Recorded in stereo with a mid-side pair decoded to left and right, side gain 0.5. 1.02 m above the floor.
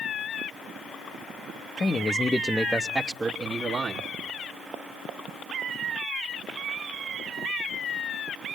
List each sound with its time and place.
1.8 s a man speaking: 40° left, 0.8 m; by 4.1 s 50° right, 1.3 m